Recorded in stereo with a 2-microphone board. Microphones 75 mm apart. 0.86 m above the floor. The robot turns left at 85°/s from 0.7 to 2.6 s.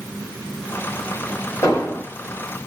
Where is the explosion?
55° left, 1.6 m; by 2.1 s 15° left, 1.6 m.